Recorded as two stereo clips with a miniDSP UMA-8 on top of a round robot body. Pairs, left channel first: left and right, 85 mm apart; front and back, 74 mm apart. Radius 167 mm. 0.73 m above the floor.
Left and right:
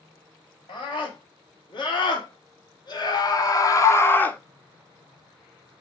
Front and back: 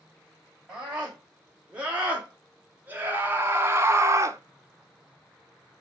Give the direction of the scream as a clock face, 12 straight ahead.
8 o'clock.